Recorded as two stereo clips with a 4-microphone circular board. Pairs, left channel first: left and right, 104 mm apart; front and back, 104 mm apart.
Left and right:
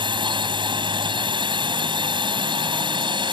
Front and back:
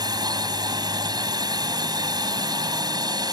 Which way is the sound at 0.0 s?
130° right.